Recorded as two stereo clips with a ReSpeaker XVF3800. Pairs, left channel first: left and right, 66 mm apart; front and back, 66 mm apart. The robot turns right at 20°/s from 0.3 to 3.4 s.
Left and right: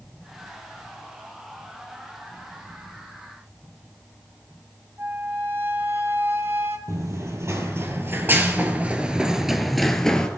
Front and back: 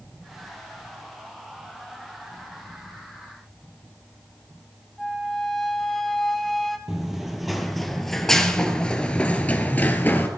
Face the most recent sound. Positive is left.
turn(degrees=25)